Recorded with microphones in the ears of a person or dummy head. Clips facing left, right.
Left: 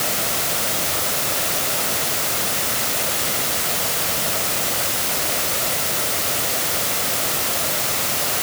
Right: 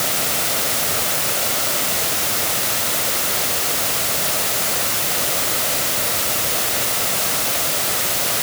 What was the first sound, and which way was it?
Only background noise.